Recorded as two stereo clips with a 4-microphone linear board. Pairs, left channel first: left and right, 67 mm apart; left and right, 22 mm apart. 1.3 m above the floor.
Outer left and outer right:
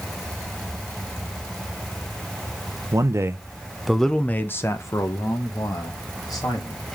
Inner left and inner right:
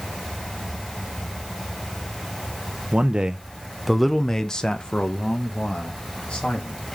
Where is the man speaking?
50° right (ahead or behind), 0.9 m; by 6.8 s 65° left (ahead or behind), 2.5 m.